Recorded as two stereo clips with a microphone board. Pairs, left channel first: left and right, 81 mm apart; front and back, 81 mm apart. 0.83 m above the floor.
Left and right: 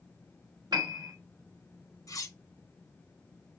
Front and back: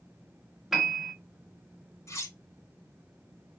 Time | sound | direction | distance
0.7 | a piano | 90° right | 1.3 m
2.1 | cutlery clinking | 50° left | 0.8 m